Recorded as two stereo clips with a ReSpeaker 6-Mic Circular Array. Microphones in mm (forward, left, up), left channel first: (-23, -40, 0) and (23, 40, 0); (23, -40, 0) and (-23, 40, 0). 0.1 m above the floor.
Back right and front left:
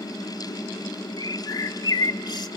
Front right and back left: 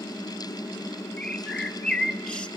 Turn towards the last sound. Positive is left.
turn(degrees=-140)